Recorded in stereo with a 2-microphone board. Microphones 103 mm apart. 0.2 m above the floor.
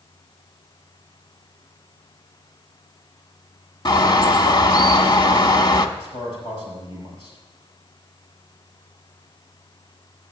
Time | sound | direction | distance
3.9 | a bird | 45° left (ahead or behind) | 0.6 m
6.0 | a man speaking | 65° left (ahead or behind) | 5 m